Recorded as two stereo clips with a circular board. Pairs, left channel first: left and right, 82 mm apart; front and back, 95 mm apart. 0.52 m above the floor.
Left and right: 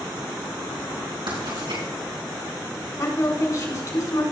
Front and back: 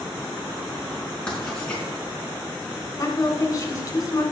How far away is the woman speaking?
About 3 m.